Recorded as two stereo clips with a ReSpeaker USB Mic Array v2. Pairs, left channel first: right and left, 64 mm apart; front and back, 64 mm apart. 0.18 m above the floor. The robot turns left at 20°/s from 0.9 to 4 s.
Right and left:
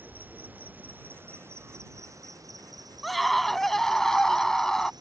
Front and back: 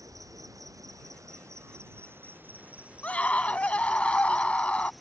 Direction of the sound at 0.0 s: 150° left.